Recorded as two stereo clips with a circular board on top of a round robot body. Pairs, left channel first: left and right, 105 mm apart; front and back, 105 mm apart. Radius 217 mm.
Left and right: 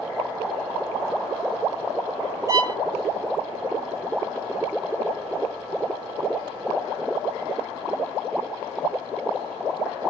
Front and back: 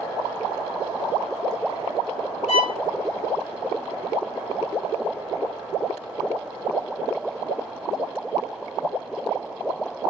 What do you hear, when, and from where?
2.5 s a violin: 30° right, 0.8 m